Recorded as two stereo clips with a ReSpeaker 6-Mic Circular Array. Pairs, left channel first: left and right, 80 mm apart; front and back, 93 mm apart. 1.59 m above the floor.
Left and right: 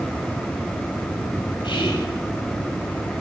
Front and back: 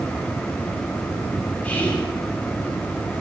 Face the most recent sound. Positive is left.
turn(degrees=75)